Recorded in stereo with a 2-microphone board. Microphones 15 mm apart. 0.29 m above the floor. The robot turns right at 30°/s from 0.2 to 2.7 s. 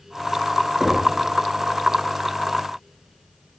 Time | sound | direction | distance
0.8 | knocking | 30° right (ahead or behind) | 3.5 m